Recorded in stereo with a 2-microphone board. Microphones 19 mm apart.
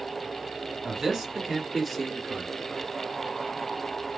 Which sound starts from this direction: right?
A man speaking, at 0.8 s.